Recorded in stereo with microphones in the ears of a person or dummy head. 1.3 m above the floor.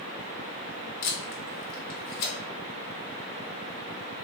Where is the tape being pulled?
55° left (ahead or behind), 0.7 m.